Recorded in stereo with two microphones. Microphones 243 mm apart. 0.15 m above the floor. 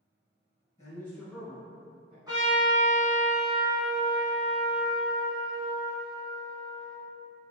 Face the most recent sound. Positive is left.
turn(degrees=-15)  # may be behind; listen again after turning